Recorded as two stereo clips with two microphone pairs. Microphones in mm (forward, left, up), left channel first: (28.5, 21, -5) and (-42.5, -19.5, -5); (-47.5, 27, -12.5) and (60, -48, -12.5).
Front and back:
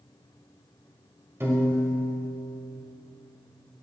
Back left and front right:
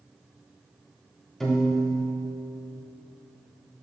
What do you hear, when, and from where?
1.4 s a piano: 130° right, 1.5 m